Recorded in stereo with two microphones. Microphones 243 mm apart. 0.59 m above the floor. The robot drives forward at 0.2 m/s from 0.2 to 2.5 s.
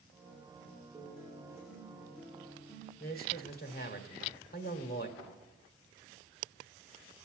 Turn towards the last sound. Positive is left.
turn(degrees=15)  # may be behind; listen again after turning